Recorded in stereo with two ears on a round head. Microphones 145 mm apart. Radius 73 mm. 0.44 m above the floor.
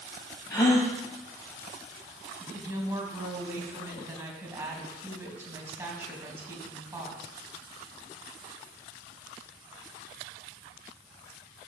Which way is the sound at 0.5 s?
20° left (ahead or behind).